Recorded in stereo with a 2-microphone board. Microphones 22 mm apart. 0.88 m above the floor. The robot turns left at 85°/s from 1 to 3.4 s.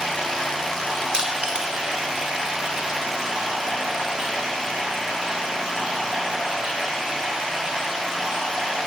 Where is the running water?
35° left, 1.9 m; by 8.9 s 170° right, 1.9 m.